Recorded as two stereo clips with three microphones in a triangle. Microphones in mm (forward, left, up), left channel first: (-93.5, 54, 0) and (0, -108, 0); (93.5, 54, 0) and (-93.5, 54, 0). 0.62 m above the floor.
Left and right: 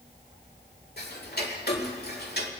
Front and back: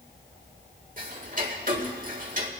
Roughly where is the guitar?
No guitar in this recording.